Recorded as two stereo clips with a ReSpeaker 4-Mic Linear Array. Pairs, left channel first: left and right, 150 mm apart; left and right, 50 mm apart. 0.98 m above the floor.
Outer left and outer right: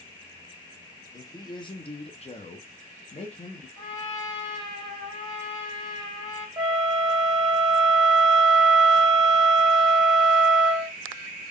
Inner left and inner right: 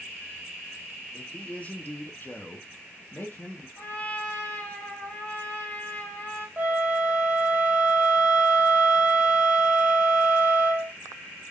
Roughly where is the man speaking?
Left.